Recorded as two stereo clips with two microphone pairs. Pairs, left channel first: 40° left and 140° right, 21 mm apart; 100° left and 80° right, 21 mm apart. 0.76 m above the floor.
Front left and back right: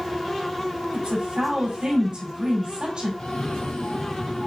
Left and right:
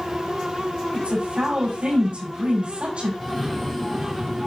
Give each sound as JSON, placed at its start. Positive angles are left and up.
{"t": 0.9, "sound": "a woman speaking", "azimuth_deg": -95, "distance_m": 6.0}
{"t": 3.2, "sound": "a cough", "azimuth_deg": 25, "distance_m": 0.8}